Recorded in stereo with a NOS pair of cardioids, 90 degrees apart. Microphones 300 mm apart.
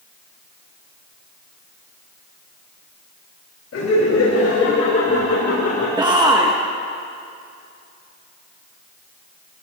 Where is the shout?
15° right, 1.5 m.